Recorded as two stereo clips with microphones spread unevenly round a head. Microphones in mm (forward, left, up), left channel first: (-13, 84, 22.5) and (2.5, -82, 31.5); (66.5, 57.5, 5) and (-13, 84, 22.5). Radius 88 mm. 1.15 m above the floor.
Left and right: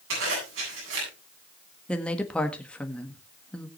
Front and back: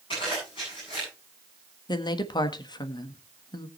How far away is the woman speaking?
About 1.5 m.